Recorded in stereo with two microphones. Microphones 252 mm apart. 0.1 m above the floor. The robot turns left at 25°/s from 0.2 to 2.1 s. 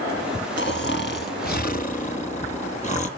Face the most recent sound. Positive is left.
turn(degrees=40)